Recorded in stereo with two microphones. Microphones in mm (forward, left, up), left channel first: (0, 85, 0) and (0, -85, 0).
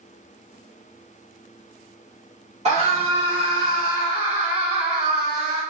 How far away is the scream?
About 1.7 m.